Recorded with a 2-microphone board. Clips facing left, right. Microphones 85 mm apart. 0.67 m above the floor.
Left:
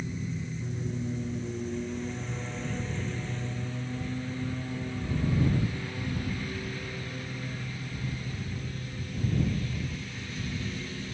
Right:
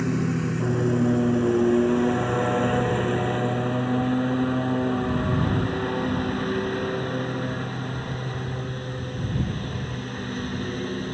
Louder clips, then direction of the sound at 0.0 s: Right 12 dB; 75° right (ahead or behind).